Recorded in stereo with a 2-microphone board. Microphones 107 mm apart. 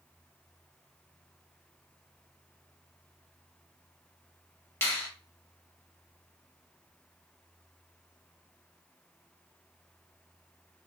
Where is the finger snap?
20° left (ahead or behind), 0.9 m.